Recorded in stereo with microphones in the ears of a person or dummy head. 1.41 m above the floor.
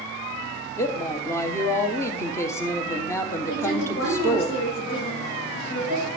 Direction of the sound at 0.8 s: 15° left (ahead or behind).